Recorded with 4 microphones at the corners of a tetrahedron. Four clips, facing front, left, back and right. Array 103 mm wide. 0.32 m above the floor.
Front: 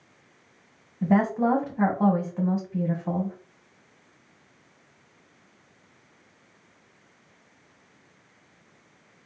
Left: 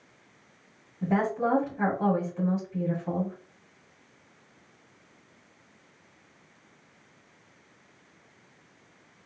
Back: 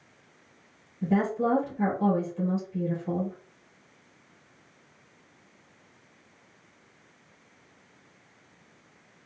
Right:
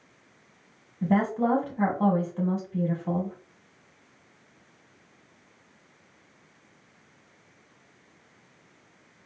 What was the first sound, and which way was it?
A woman speaking, 20° right.